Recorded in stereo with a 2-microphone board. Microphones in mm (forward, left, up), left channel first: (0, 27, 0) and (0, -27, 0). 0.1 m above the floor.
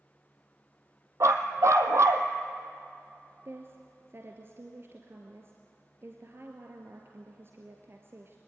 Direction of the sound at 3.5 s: 45° right (ahead or behind).